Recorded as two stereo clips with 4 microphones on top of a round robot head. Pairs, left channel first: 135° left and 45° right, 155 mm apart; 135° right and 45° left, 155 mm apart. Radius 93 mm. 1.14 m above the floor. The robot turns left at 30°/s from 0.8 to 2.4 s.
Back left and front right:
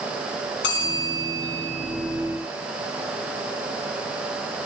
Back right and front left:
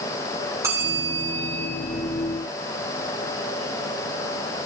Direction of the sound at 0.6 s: 120° left.